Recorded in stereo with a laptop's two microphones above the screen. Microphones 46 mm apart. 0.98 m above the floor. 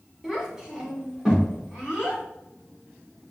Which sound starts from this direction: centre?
A child speaking, at 0.2 s.